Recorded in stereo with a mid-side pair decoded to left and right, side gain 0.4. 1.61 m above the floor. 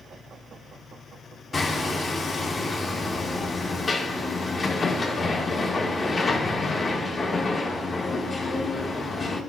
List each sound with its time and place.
1.5 s hammering: 35° left, 1.6 m